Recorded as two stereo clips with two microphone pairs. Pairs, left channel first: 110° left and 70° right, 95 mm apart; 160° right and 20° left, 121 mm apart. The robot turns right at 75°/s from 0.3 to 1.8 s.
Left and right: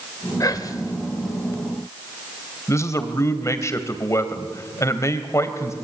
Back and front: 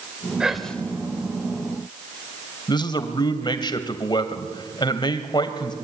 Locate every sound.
0.4 s whispering: 100° left, 1.1 m; by 0.9 s 135° left, 1.1 m
2.7 s a man speaking: 160° left, 2 m